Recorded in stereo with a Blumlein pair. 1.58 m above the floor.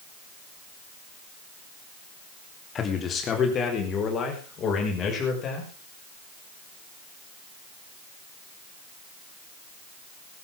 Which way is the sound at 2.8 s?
25° left.